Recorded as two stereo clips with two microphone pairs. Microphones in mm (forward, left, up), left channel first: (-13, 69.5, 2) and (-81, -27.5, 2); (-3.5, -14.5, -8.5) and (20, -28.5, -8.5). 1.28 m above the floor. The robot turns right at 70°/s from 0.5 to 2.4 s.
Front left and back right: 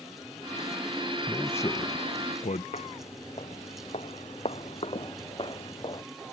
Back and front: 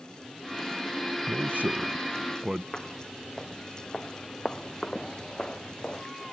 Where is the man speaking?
35° right; by 2.6 s 45° left.